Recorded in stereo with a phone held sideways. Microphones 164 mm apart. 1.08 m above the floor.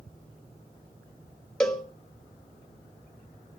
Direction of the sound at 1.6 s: 5° left (ahead or behind).